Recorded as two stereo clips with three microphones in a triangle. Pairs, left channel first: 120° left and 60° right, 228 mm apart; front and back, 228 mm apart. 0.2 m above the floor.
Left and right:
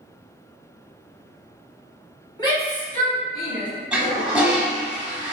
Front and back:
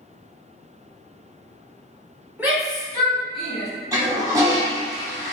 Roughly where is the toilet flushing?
Behind right.